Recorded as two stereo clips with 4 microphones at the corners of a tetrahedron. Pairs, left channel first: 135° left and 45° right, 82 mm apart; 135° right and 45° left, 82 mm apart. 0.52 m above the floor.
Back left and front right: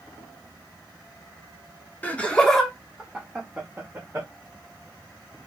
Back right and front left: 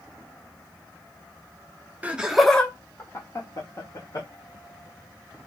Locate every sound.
2.0 s laughter: 90° left, 0.8 m; by 4.3 s 110° right, 1.5 m